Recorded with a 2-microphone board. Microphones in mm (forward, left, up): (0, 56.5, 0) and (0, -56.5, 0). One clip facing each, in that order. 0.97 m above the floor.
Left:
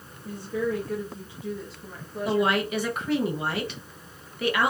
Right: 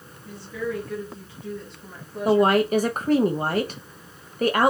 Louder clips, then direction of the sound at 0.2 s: Left 2 dB; 55° left (ahead or behind).